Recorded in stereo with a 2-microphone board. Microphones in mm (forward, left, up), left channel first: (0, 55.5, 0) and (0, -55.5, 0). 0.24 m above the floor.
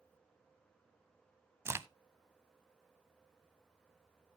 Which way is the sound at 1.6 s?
20° right (ahead or behind).